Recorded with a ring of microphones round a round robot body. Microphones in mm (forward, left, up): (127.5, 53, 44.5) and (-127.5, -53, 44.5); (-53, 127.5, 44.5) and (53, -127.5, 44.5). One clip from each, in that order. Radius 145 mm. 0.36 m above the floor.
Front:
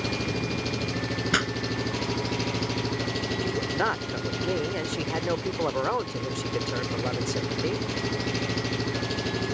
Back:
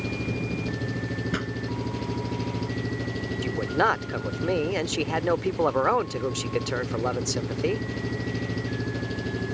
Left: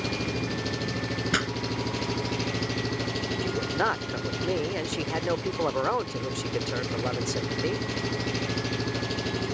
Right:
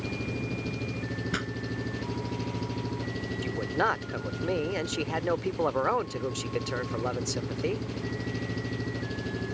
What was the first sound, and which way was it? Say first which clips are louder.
An engine running: front 2 dB, left 5 dB; 65° left.